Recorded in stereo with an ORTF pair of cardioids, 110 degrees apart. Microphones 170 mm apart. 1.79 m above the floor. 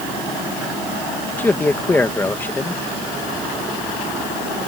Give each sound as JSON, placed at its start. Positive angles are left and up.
{"t": 1.4, "sound": "a man speaking", "azimuth_deg": 10}